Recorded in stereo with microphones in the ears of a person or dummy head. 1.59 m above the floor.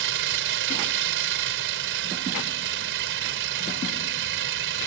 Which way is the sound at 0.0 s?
70° right (ahead or behind).